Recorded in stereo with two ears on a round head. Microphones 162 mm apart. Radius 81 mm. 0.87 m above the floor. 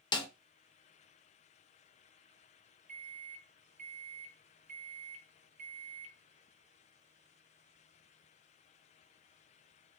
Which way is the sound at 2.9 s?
45° right (ahead or behind).